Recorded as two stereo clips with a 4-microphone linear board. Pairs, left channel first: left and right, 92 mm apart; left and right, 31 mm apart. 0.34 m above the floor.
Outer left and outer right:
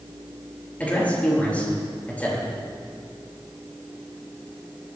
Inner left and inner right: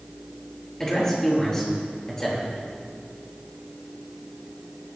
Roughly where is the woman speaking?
Centre.